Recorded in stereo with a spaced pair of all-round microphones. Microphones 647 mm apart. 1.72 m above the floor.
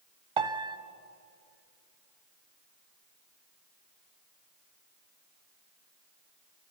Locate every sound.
0.4 s a piano: 50° right (ahead or behind), 0.9 m